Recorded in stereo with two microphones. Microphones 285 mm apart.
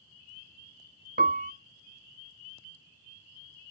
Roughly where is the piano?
Right.